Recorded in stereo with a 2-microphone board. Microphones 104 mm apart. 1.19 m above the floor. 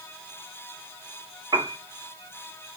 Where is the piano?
45° right (ahead or behind), 1.0 m.